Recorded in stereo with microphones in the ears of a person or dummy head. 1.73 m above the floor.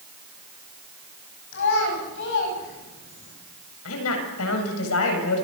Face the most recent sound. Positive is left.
turn(degrees=80)